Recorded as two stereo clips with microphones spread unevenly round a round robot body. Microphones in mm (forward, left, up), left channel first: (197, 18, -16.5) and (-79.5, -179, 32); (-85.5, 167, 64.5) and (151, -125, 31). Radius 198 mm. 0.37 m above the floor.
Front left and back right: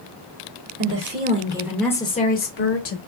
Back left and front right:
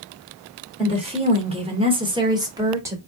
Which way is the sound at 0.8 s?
110° right.